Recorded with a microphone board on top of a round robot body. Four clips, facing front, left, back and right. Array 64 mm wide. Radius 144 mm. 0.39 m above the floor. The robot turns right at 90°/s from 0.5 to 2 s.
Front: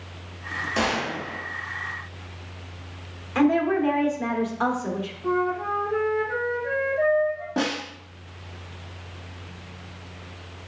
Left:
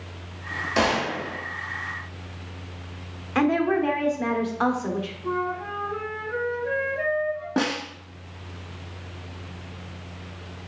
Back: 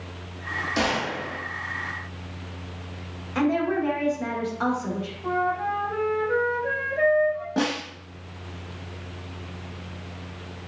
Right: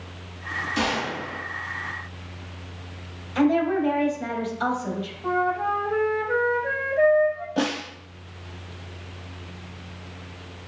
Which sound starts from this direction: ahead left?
A gunshot, at 0.8 s.